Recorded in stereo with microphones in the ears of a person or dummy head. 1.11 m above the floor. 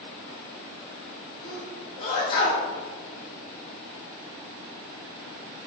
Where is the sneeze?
20° left (ahead or behind), 0.7 m.